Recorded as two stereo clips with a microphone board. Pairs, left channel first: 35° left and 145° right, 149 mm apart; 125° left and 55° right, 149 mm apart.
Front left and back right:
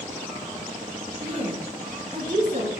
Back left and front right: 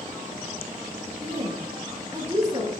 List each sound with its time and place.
1.2 s a woman speaking: 105° right, 5 m; by 2.7 s 120° right, 5 m